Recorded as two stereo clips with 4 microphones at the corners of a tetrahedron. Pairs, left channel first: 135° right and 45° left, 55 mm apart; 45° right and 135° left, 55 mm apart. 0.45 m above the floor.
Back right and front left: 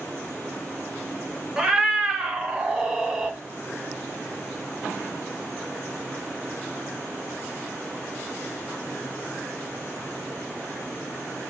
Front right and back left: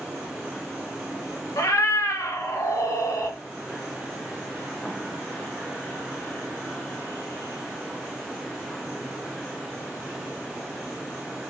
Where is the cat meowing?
35° right, 0.7 m.